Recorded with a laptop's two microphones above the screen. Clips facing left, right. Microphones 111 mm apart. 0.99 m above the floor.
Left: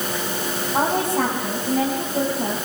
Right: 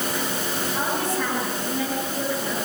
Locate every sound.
0.7 s a woman speaking: 75° left (ahead or behind), 6 m